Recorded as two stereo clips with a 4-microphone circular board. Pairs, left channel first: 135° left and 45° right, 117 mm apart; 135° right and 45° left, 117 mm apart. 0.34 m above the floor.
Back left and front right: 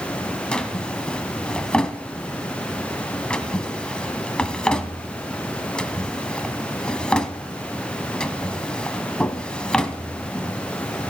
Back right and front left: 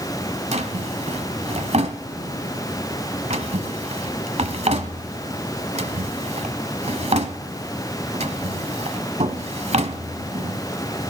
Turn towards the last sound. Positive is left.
turn(degrees=55)